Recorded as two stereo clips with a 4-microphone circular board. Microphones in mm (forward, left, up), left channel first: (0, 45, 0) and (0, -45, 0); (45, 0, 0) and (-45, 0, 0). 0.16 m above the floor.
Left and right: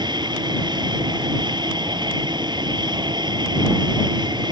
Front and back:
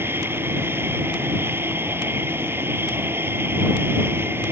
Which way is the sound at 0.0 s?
120° right.